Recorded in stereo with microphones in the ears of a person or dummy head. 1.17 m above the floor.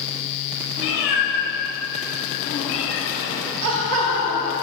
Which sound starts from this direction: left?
A cat meowing, at 0.8 s.